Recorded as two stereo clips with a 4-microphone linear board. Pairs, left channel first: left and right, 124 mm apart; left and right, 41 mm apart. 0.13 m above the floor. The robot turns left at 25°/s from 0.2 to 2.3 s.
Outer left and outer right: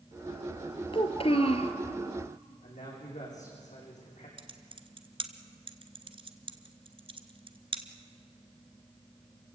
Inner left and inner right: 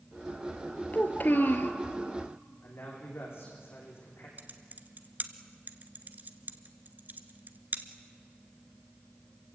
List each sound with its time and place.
0.9 s a child speaking: 45° left (ahead or behind), 1.4 m; by 1.7 s 60° left (ahead or behind), 1.4 m
2.6 s a man speaking: 80° left, 8.5 m
4.4 s typing on a keyboard: 50° right (ahead or behind), 1.3 m